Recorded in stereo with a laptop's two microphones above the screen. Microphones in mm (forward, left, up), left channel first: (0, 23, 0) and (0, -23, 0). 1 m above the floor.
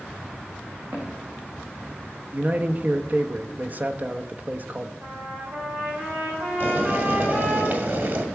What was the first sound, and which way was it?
Footsteps, 55° right (ahead or behind).